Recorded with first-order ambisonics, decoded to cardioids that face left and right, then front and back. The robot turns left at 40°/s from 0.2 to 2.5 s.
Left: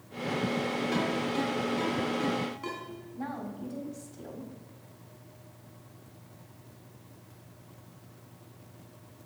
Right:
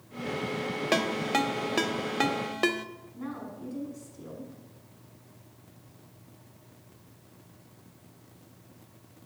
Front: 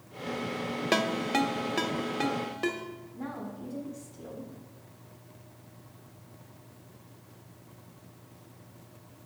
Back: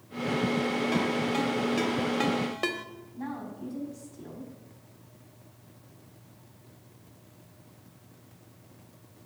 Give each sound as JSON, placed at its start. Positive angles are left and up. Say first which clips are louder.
{"t": 0.9, "sound": "a ringtone", "louder": "right 8 dB, front 1 dB", "azimuth_deg": -45, "distance_m": 0.7}
{"t": 3.1, "sound": "a woman speaking", "louder": "left 2 dB, back 3 dB", "azimuth_deg": 75, "distance_m": 4.0}